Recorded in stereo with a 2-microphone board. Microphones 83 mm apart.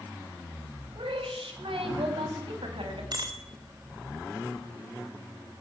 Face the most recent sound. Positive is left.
turn(degrees=-50)  # may be behind; listen again after turning